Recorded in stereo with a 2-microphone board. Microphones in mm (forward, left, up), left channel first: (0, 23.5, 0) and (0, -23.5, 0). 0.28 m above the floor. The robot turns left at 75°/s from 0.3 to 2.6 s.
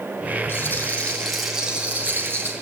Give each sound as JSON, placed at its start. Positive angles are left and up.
{"t": 0.5, "sound": "a rattle", "azimuth_deg": 70, "distance_m": 3.0}